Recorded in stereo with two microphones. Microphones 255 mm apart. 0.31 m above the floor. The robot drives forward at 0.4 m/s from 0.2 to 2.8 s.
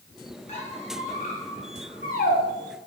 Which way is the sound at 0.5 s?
25° left (ahead or behind).